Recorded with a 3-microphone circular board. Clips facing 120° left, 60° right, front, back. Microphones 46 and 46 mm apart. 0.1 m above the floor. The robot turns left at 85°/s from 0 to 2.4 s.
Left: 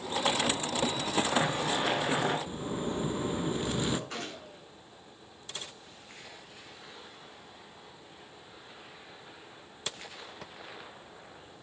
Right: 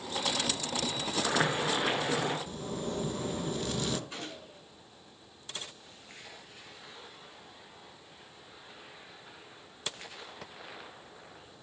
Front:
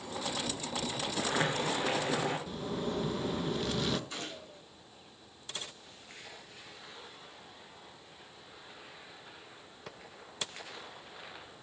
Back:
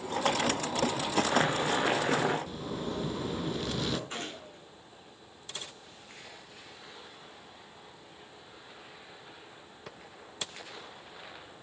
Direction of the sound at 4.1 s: 130° left.